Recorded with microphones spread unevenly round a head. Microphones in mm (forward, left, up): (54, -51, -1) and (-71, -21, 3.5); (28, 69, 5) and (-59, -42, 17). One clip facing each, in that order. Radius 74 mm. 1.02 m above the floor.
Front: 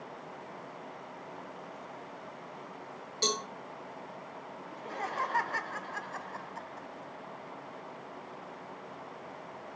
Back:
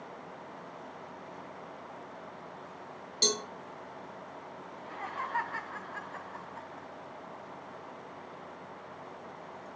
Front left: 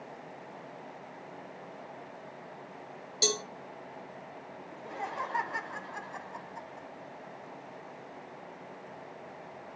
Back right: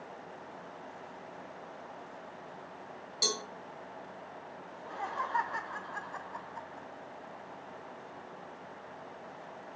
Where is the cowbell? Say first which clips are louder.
Even, front left 5 dB; 115° left, 2 m.